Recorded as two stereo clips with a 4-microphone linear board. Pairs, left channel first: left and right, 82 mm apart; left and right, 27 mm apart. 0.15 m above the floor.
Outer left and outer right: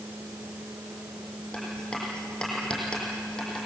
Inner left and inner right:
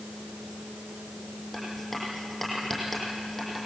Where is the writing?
10° left (ahead or behind), 6.5 m.